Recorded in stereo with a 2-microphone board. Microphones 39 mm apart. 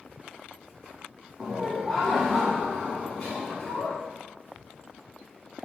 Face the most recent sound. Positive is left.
turn(degrees=35)  # may be behind; listen again after turning